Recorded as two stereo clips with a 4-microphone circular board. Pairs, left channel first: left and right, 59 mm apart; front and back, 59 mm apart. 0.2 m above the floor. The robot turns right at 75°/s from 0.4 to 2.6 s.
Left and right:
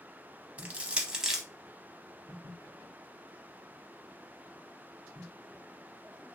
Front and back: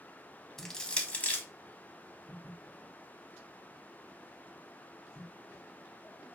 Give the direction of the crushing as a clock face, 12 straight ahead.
3 o'clock.